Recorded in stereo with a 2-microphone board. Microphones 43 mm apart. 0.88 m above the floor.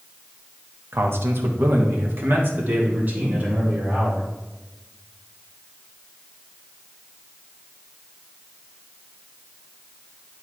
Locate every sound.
0.9 s a man speaking: 60° right (ahead or behind), 1.0 m; by 4.3 s 40° right (ahead or behind), 2.5 m